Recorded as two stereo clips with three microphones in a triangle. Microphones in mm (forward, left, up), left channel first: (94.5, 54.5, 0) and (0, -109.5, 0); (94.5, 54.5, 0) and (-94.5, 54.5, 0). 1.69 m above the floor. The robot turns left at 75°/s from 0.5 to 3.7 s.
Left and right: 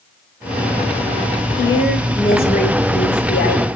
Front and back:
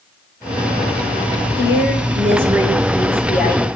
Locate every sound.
1.6 s a woman speaking: straight behind, 6 m; by 3.7 s 25° left, 6 m